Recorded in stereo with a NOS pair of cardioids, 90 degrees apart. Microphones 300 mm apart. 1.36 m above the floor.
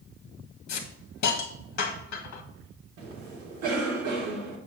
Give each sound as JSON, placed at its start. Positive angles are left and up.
{"t": 0.7, "sound": "a hiss", "azimuth_deg": 55, "distance_m": 1.6}
{"t": 3.0, "sound": "a cough", "azimuth_deg": -65, "distance_m": 3.5}